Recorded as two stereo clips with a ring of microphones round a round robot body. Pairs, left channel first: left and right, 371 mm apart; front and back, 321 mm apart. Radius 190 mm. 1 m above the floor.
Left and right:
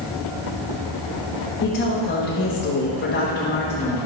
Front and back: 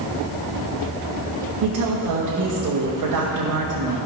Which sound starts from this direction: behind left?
A woman speaking, at 1.6 s.